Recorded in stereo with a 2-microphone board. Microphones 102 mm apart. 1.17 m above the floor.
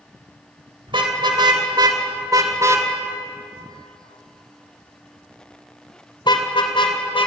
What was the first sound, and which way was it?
A car horn, 50° right (ahead or behind).